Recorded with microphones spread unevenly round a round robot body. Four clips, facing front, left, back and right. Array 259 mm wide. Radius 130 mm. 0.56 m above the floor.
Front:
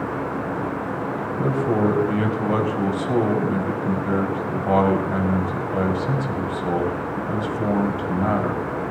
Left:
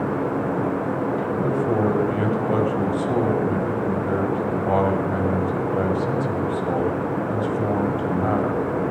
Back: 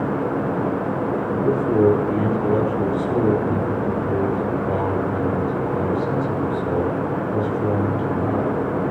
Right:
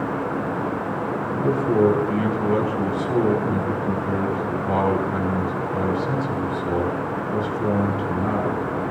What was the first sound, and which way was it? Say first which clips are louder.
A man speaking: right 5 dB, back 3 dB; 20° left.